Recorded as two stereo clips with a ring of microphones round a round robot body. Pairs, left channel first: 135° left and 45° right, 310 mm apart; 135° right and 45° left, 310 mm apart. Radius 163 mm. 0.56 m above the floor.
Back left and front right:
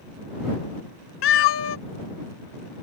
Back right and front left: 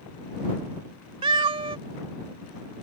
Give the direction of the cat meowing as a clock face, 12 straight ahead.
8 o'clock.